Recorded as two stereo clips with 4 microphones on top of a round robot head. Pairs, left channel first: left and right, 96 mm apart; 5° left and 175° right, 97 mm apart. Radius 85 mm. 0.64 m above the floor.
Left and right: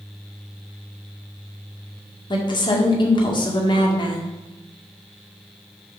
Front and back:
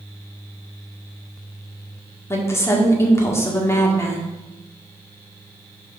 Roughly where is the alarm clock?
I don't hear an alarm clock.